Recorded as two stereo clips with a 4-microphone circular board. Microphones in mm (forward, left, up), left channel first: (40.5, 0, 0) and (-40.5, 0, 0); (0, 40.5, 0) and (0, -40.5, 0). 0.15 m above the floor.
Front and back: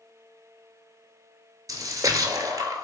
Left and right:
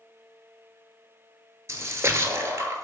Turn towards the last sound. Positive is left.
turn(degrees=-145)